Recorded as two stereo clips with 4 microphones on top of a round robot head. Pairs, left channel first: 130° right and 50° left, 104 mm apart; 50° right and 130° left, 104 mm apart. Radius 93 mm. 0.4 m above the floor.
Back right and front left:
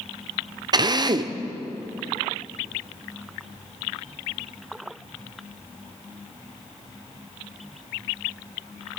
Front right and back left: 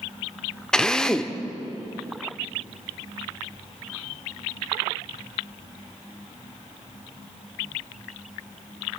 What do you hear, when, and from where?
0.7 s a drill: 30° left, 1.1 m